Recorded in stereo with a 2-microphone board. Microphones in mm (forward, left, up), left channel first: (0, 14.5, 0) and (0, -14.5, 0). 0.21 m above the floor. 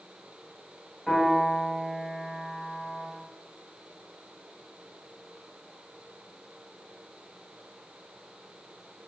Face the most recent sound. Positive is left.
turn(degrees=0)  # may be behind; listen again after turning